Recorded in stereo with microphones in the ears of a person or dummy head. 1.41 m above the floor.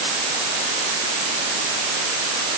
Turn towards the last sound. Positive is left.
No sound to turn to.